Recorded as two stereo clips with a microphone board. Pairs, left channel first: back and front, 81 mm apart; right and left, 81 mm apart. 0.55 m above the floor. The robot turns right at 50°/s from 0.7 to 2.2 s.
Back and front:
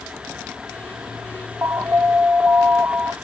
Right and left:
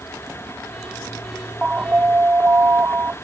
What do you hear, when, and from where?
1.6 s an alarm: 25° left; by 3.1 s 50° left